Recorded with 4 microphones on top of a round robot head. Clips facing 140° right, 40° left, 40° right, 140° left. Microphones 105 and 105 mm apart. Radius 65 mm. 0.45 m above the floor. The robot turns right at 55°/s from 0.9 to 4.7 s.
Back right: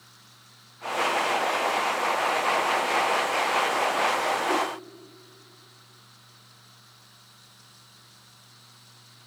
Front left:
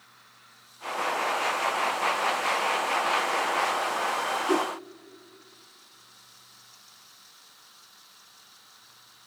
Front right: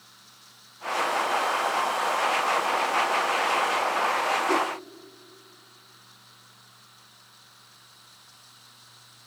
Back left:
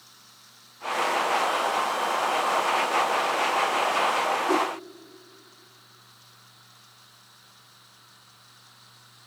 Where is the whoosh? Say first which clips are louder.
Front left 4 dB, back left 2 dB; 60° left, 1.1 m; by 4.7 s 75° left, 1.1 m.